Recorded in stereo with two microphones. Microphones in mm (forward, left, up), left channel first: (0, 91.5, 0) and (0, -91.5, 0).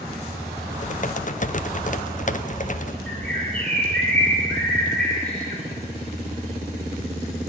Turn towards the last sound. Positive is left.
turn(degrees=10)  # may be behind; listen again after turning